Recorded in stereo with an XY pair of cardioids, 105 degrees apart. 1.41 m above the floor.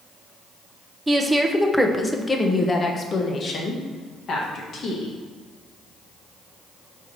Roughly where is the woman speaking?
Ahead.